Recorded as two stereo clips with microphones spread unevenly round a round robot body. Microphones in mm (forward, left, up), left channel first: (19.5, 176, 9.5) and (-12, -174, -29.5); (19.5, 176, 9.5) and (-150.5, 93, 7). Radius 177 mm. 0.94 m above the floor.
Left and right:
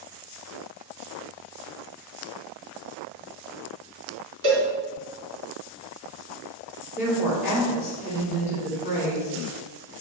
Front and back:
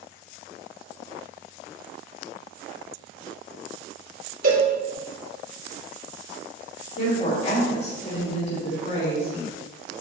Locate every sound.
4.4 s a cowbell: 135° right, 3.5 m
7.0 s a woman speaking: 10° right, 3.5 m